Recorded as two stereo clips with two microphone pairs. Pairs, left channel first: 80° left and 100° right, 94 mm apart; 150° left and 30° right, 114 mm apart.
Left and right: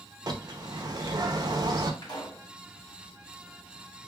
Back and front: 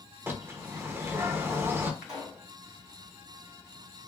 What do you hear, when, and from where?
0.3 s a bird: 90° right, 0.7 m
2.0 s a pop: 50° left, 2.5 m